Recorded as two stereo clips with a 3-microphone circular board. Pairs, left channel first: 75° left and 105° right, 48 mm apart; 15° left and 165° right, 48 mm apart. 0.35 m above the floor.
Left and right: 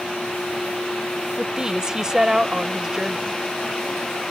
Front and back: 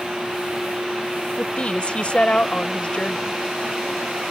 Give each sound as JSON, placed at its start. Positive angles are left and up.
{"t": 1.4, "sound": "a woman speaking", "azimuth_deg": -35}